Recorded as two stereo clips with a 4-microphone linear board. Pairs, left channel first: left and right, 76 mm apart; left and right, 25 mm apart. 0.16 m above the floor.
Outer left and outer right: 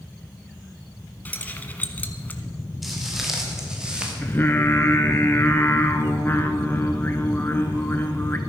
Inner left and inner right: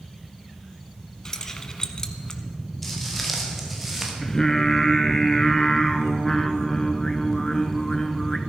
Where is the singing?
25° left (ahead or behind), 1.1 m.